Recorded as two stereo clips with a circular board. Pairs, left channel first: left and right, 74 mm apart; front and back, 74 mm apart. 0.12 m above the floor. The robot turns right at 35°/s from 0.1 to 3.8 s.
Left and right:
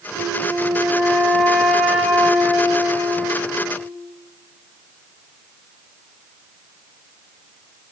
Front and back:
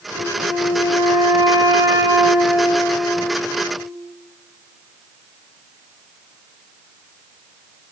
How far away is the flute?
About 3.5 m.